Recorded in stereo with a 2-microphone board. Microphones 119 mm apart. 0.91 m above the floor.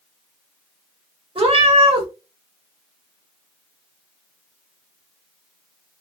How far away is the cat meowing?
About 0.9 m.